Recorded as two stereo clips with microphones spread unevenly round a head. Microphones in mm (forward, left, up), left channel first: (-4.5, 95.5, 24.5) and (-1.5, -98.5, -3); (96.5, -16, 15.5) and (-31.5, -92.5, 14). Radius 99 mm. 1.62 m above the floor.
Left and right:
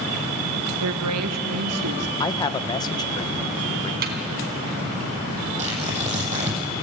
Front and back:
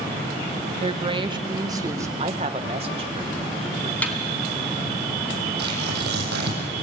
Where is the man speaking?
155° left, 1.0 m.